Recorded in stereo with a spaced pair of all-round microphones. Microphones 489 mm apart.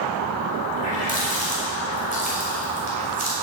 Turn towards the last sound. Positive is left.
turn(degrees=-85)